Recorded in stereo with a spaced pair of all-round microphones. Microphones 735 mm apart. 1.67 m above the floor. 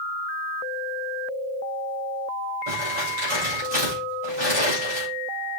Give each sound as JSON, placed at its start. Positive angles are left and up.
{"t": 2.7, "sound": "crumpling", "side_deg": -50, "distance_m": 6.5}